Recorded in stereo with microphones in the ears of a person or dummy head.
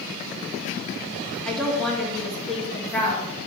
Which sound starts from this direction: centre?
A woman speaking, at 1.4 s.